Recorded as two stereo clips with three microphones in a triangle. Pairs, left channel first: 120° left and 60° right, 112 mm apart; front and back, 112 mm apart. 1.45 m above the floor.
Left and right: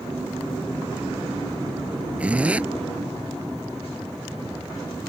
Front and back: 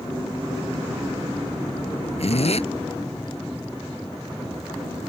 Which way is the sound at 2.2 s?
20° left.